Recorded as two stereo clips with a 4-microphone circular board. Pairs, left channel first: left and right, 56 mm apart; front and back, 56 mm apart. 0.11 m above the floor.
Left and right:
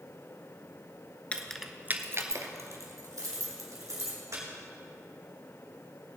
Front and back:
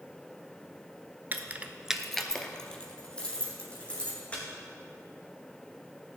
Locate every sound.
1.3 s keys jangling: 145° left, 0.9 m; by 4.4 s 65° right, 4.5 m